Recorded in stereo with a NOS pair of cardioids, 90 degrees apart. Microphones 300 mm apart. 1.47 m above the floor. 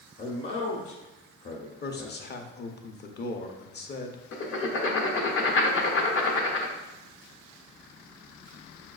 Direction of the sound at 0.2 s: 35° left.